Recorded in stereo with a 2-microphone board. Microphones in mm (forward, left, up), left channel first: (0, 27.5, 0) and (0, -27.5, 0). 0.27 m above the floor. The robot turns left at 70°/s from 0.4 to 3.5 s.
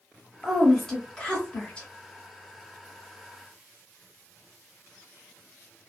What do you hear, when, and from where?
0.4 s a woman speaking: centre (ahead or behind), 1.0 m; by 1.9 s 20° left (ahead or behind), 1.0 m